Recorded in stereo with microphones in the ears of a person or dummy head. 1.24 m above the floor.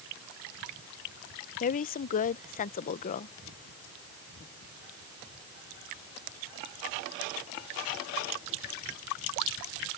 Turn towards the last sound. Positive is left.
turn(degrees=40)  # may be behind; listen again after turning